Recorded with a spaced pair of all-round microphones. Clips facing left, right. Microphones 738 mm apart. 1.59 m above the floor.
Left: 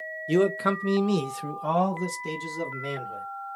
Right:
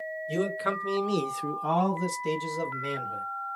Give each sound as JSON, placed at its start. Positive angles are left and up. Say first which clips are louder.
{"t": 0.3, "sound": "a man speaking", "louder": "left 7 dB", "side_deg": 85, "distance_m": 1.0}